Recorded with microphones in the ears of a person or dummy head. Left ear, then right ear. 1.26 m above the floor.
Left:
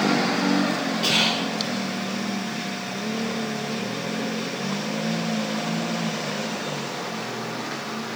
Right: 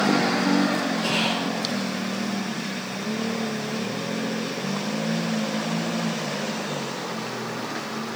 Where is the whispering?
20° left (ahead or behind), 0.7 m.